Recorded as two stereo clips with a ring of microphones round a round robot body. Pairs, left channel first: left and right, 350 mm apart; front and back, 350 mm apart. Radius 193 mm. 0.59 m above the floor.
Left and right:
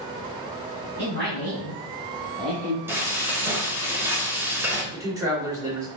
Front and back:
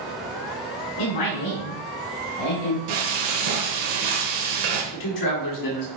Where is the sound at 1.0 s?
30° right, 4 m; by 2.8 s 10° right, 3 m.